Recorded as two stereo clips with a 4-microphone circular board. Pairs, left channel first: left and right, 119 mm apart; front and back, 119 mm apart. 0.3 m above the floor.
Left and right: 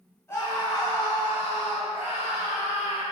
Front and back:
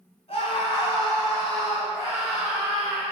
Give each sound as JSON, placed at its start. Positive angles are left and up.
{"t": 0.3, "sound": "a scream", "azimuth_deg": 25, "distance_m": 3.0}